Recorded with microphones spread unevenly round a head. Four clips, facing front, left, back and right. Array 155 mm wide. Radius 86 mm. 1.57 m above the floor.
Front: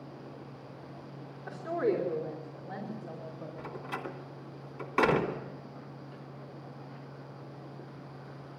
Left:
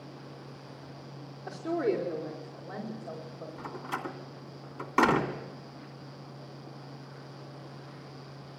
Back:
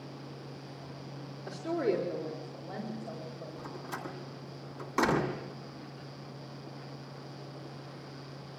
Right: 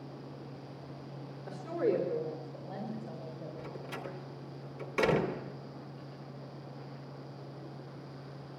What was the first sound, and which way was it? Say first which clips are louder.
A woman speaking: left 2 dB, front 1 dB; 130° left.